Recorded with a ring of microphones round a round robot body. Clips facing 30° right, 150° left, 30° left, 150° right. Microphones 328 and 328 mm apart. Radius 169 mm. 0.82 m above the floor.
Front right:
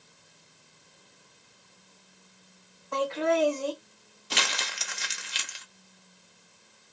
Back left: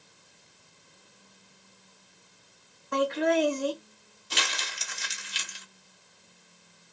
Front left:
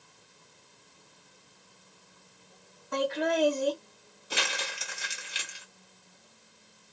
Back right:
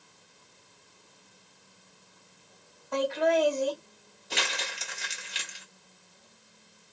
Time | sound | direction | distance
2.9 | laughter | 90° left | 1.2 m
4.3 | crumpling | 55° right | 0.6 m